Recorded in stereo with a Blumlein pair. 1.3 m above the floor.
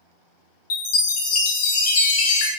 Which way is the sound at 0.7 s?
45° left.